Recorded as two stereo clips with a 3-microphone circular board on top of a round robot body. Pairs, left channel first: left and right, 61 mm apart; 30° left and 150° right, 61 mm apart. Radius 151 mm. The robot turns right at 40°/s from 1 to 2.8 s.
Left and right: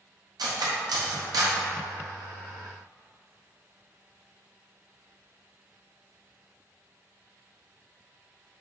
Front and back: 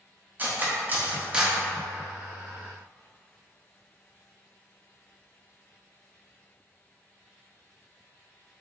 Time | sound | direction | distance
0.4 | cutlery clinking | 90° right | 0.7 m